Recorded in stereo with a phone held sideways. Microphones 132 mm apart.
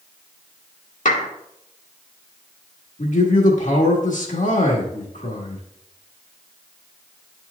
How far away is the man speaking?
About 1.5 m.